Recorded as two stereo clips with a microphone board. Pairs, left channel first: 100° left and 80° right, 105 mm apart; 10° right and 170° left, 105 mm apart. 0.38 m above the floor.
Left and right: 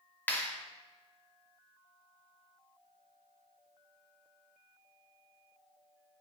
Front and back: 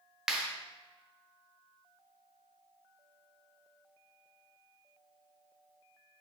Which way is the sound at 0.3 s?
95° left.